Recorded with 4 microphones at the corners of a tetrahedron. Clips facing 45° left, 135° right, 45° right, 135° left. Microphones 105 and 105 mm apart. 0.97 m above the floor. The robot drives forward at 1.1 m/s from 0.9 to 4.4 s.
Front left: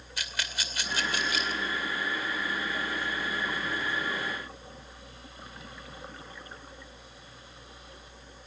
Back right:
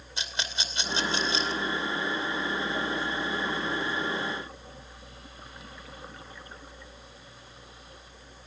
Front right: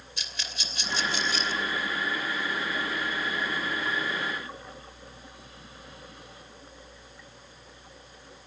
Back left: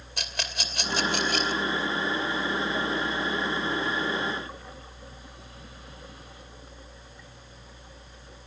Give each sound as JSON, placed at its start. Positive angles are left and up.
{"t": 0.2, "sound": "a rattle", "azimuth_deg": 160, "distance_m": 2.5}